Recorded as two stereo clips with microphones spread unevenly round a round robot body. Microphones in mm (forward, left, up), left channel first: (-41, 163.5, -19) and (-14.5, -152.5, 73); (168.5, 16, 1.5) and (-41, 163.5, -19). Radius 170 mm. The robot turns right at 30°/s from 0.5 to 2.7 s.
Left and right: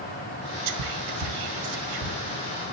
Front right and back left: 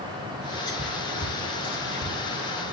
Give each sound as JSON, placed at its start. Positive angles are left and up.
{"t": 0.7, "sound": "whispering", "azimuth_deg": -115, "distance_m": 1.1}